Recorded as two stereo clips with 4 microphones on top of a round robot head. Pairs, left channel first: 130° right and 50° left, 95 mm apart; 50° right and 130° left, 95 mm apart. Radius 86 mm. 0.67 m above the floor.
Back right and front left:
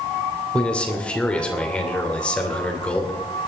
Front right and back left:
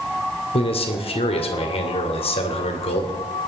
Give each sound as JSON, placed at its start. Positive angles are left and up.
{"t": 0.5, "sound": "a man speaking", "azimuth_deg": -50, "distance_m": 2.5}